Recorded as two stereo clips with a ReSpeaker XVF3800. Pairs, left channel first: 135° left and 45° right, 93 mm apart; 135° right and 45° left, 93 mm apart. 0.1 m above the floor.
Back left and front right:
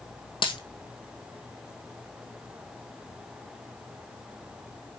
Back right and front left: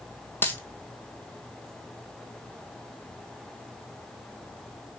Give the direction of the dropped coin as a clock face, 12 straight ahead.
7 o'clock.